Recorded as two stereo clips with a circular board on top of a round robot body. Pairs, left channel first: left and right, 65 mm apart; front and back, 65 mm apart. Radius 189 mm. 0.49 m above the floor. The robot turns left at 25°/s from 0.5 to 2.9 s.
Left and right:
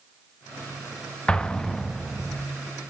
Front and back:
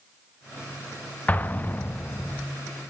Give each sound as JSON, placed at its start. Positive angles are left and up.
{"t": 1.3, "sound": "an explosion", "azimuth_deg": 35, "distance_m": 0.9}